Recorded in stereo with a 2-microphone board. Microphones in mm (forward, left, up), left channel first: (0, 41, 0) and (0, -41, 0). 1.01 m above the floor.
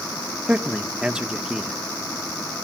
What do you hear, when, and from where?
0.5 s a man speaking: 10° right (ahead or behind), 1.1 m